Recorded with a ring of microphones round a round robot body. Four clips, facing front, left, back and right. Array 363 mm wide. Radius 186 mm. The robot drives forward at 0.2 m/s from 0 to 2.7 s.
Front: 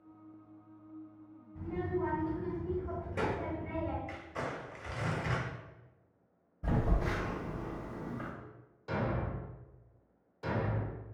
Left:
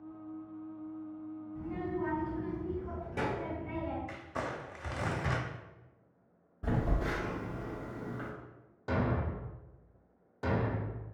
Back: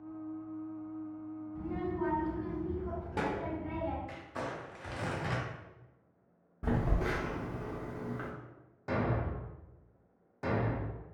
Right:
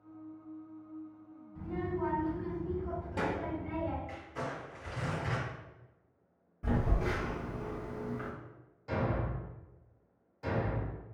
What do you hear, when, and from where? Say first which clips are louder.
1.6 s a child speaking: right 1 dB, front 1 dB; 175° right, 1.1 m
4.1 s crumpling: left 1 dB, even; 105° left, 0.6 m
6.6 s a phone buzzing: even, back 1 dB; 170° left, 0.8 m
8.9 s a thud: left 1 dB, back 2 dB; 125° left, 0.6 m